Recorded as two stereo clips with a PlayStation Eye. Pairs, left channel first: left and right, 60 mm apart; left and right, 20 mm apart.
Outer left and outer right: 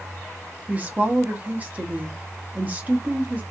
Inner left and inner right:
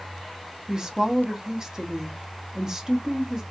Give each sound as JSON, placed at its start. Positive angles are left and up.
{"t": 0.7, "sound": "a woman speaking", "side_deg": -30, "distance_m": 0.7}